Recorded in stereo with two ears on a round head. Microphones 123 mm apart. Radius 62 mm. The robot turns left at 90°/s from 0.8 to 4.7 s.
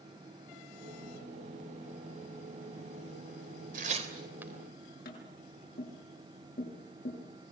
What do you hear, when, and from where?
3.7 s tearing paper: 65° right (ahead or behind), 3.5 m; by 4.5 s 5° right (ahead or behind), 3.5 m
5.0 s tapping: 70° left (ahead or behind), 7.5 m